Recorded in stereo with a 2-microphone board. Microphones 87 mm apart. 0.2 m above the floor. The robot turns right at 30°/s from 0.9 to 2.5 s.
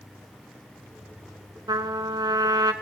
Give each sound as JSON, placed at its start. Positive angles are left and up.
{"t": 1.7, "sound": "a trumpet", "side_deg": -65, "distance_m": 0.7}